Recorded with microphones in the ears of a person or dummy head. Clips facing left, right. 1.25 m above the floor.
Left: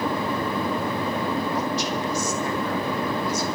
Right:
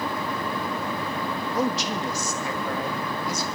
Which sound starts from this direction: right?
A man speaking, at 1.6 s.